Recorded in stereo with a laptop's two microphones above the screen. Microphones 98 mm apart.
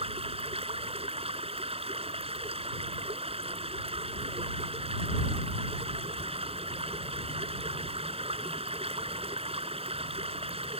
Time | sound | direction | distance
0.0 | running water | 75° right (ahead or behind) | ?